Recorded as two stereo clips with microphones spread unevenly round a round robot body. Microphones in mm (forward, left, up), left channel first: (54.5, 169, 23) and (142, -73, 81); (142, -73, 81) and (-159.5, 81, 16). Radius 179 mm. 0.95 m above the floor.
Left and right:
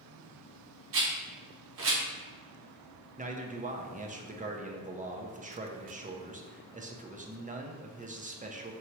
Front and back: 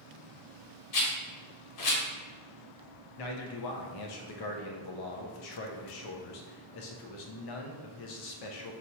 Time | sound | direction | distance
0.9 | a rattle | 50° right | 1.0 m
3.2 | a man speaking | 5° right | 0.8 m